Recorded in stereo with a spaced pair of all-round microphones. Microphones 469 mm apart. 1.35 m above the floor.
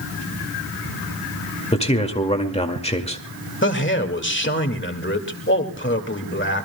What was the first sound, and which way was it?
A man speaking, 15° left (ahead or behind).